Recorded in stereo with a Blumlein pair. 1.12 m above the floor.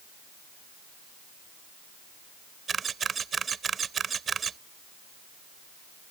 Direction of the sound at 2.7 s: 20° right.